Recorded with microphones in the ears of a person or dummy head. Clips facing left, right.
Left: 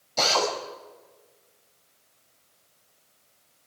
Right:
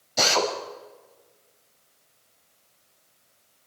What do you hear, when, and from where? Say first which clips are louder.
0.2 s a drill: right 1 dB; 10° right (ahead or behind), 6.5 m